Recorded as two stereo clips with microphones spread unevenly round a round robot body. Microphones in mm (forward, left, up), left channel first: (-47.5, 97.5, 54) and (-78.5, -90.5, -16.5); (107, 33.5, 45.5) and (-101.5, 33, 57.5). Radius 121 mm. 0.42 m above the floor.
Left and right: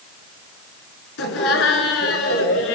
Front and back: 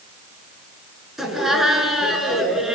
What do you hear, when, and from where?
1.2 s laughter: 90° left, 6 m